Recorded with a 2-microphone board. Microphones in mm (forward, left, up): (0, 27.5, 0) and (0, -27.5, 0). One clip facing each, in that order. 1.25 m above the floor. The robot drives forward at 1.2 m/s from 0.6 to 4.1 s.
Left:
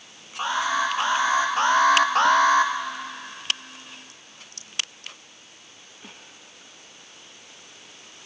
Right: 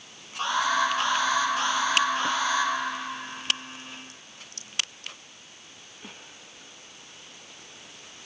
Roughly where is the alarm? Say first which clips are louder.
Left 1 dB; centre.